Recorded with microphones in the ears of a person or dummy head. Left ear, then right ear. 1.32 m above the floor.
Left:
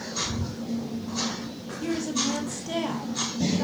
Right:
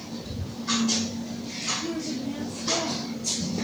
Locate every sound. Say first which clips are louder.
1.8 s a woman speaking: left 4 dB; 75° left (ahead or behind), 1.5 m